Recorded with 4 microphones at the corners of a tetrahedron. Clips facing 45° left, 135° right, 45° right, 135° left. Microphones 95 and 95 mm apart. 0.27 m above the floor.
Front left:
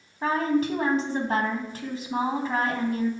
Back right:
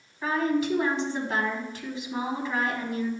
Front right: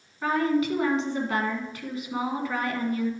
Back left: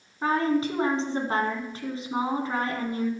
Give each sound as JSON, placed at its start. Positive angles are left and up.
{"t": 0.2, "sound": "a woman speaking", "azimuth_deg": 85, "distance_m": 2.0}